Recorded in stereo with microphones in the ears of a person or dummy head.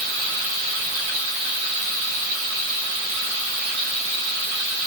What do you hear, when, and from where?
Only background noise.